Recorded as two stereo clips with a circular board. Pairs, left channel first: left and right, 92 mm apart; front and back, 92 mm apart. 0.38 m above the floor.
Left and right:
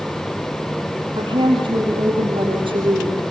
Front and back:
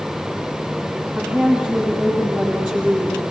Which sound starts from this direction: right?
A woman speaking, at 1.1 s.